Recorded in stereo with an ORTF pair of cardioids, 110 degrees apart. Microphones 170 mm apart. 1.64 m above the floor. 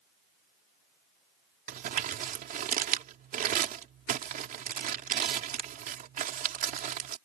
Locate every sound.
1.7 s crumpling: 55° right